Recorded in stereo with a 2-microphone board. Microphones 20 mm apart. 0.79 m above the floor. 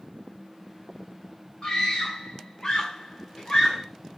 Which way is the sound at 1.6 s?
45° left (ahead or behind).